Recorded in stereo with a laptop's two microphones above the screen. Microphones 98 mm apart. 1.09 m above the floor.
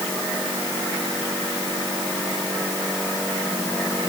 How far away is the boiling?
No boiling in this recording.